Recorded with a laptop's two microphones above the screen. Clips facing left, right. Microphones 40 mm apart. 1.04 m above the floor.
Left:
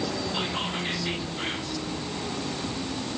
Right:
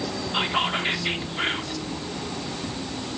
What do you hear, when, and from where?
0.3 s whispering: 45° right (ahead or behind), 3 m